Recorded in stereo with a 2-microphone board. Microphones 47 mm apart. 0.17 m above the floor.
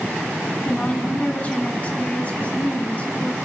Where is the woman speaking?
30° left (ahead or behind), 1.2 m.